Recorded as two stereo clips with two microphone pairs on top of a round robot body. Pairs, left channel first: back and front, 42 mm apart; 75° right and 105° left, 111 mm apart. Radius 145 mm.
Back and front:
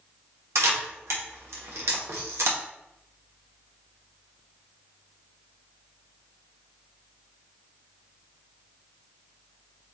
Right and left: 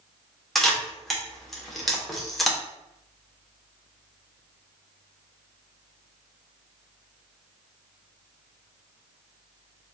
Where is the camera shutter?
15° left, 0.9 m.